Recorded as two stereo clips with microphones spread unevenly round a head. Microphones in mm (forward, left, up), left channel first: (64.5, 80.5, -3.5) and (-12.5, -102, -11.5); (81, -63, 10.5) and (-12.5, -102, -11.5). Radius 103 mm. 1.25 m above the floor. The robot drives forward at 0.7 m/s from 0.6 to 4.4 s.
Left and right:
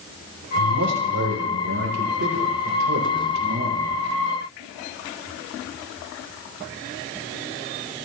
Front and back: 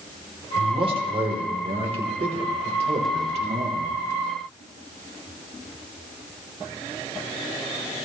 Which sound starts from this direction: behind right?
A man speaking, at 0.6 s.